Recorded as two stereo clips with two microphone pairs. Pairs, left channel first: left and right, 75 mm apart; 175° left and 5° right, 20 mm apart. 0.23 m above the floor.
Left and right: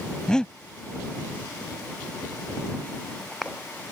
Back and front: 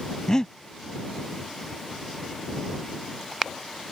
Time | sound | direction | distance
0.3 | breathing | 160° left | ?